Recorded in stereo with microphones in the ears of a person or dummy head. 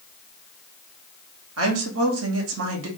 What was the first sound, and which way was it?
A woman speaking, 80° right.